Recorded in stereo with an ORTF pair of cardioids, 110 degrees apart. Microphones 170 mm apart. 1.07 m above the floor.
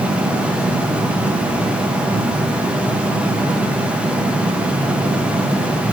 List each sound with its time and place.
0.0 s a fan: 5° right, 0.7 m